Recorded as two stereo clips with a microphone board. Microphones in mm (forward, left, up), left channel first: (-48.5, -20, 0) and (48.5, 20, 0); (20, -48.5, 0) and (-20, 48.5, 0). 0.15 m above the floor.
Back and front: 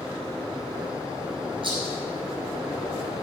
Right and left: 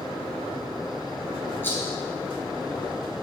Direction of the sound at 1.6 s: Straight ahead.